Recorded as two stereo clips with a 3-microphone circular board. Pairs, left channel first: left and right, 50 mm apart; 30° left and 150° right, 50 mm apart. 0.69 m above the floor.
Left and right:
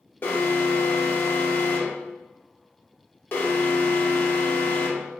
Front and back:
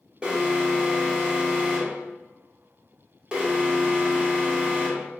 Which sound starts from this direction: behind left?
An alarm, at 0.2 s.